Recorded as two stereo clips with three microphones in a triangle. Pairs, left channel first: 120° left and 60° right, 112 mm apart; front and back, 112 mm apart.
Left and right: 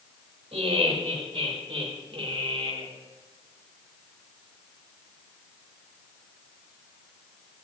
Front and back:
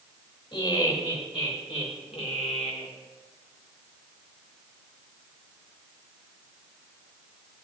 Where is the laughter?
40° right, 3.5 m; by 2.9 s 15° right, 2 m.